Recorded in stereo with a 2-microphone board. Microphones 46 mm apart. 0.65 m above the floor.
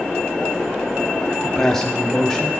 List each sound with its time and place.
1.4 s a man speaking: 10° left (ahead or behind), 0.6 m; by 2.5 s 5° left (ahead or behind), 1.8 m